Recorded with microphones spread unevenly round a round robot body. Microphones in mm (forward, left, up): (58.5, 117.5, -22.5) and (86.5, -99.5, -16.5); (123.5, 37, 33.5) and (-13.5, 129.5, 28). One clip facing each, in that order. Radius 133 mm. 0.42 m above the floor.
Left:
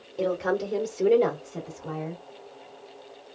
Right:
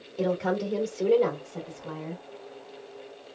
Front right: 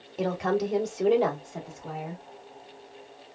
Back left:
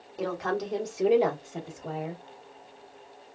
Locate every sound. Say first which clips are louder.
0.2 s a woman speaking: left 1 dB, front right 4 dB; 10° left, 1.1 m; by 2.2 s 125° left, 1.5 m